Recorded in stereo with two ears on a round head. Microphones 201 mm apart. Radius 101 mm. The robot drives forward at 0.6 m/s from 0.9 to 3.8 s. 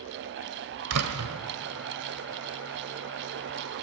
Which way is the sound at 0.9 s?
80° right.